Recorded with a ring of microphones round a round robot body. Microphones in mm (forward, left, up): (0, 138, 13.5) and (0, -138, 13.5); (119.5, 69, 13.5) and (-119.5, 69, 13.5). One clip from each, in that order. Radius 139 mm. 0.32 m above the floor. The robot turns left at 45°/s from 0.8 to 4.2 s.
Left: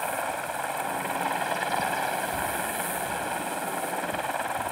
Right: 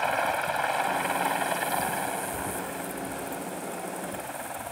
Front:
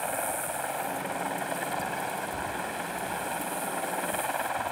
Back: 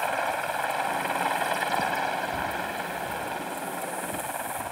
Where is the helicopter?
145° right; by 4.7 s 65° left.